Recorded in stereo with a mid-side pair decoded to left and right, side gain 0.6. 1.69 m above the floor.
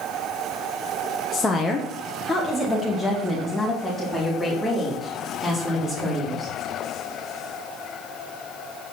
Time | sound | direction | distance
1.3 | a woman speaking | 25° left | 1.1 m